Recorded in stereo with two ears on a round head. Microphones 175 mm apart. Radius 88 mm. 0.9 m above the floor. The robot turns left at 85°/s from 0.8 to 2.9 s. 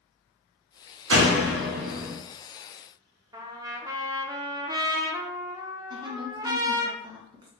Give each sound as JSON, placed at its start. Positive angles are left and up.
{"t": 1.1, "sound": "a door slam", "azimuth_deg": -75, "distance_m": 0.9}
{"t": 3.3, "sound": "a trumpet", "side_deg": -20, "distance_m": 0.6}
{"t": 5.9, "sound": "a woman speaking", "side_deg": -25, "distance_m": 0.8}